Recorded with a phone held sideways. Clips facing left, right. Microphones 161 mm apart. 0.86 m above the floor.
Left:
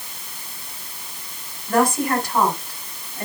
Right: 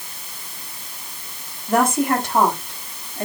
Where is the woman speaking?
25° right (ahead or behind), 7 m.